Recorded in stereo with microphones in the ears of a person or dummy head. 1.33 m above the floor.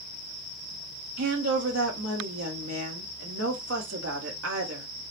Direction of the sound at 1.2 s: 80° right.